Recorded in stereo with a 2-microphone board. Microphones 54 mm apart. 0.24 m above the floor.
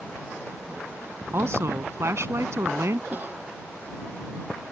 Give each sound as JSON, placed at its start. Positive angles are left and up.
{"t": 1.3, "sound": "a woman speaking", "side_deg": -55}
{"t": 3.1, "sound": "a cough", "side_deg": -35}